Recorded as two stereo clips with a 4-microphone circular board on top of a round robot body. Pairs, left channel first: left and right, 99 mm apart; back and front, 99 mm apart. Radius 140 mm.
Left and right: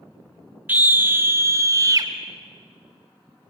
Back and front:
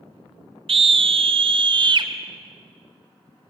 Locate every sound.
0.7 s a scream: 15° right, 3 m; by 2.1 s 40° right, 2.5 m